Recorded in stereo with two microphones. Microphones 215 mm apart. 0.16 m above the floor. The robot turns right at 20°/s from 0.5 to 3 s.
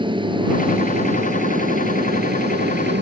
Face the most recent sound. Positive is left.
turn(degrees=-105)